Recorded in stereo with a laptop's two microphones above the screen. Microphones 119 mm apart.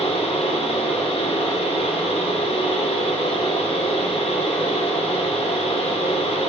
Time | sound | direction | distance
0.0 | a fan | 55° left (ahead or behind) | 1.4 m